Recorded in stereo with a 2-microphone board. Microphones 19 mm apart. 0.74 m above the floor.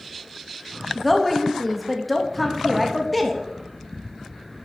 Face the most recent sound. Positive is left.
turn(degrees=5)  # may be behind; listen again after turning